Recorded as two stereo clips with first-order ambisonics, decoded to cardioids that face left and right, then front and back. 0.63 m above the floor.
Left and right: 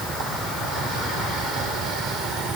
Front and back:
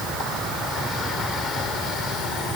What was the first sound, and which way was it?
Only background noise.